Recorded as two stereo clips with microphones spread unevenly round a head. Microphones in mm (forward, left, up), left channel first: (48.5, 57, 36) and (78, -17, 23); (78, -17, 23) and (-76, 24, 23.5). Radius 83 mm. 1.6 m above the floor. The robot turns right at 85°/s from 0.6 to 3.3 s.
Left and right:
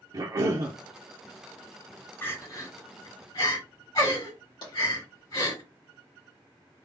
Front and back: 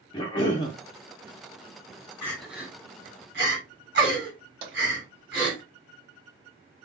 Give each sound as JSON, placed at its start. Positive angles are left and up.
{"t": 0.1, "sound": "a cough", "azimuth_deg": -65, "distance_m": 0.5}
{"t": 2.2, "sound": "crying", "azimuth_deg": 60, "distance_m": 2.5}
{"t": 4.6, "sound": "tapping", "azimuth_deg": 130, "distance_m": 1.7}